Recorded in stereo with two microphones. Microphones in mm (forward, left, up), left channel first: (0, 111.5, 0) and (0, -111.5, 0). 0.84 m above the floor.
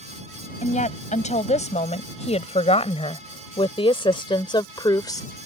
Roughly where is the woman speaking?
Left.